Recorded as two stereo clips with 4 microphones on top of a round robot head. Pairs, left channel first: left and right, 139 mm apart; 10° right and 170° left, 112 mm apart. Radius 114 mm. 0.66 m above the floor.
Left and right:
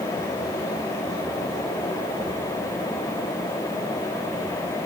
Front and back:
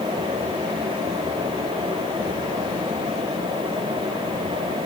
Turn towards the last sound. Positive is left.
No sound to turn to.